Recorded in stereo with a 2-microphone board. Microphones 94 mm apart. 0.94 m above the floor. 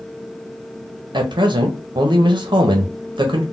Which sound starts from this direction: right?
A man speaking, at 1.1 s.